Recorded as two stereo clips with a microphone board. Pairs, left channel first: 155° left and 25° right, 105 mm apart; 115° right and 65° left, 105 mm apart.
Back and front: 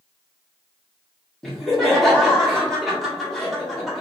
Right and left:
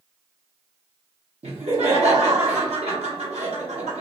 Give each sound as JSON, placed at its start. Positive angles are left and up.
{"t": 1.4, "sound": "laughter", "azimuth_deg": 70, "distance_m": 1.0}